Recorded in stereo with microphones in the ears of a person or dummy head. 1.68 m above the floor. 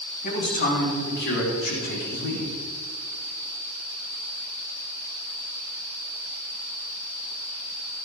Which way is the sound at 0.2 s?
45° left (ahead or behind).